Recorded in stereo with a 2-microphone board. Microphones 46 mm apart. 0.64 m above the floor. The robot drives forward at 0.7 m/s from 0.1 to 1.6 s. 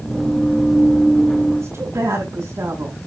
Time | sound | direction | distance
1.6 | a woman speaking | 75° right (ahead or behind) | 7 m